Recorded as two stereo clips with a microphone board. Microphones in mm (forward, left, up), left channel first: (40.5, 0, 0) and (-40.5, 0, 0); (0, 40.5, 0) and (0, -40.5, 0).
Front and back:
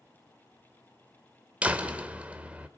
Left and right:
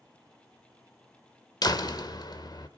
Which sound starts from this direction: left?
A door slam, at 1.6 s.